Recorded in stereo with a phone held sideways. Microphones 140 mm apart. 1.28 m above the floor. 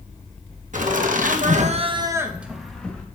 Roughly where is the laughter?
Right.